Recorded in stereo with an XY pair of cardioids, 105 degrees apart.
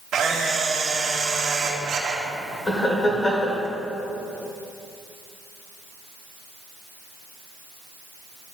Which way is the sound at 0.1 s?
65° right.